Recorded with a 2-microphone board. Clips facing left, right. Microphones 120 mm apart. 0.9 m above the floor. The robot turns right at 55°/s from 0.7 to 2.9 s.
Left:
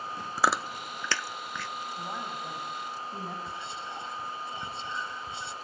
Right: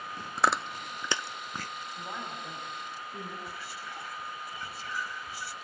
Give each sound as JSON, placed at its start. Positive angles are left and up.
{"t": 0.4, "sound": "chewing", "side_deg": 5, "distance_m": 0.5}
{"t": 2.0, "sound": "a woman speaking", "azimuth_deg": 0, "distance_m": 6.0}
{"t": 3.5, "sound": "whispering", "side_deg": 25, "distance_m": 0.9}